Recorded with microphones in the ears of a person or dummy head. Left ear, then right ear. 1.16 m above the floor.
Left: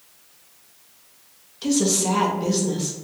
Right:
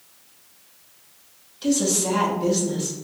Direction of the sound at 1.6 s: 5° left (ahead or behind).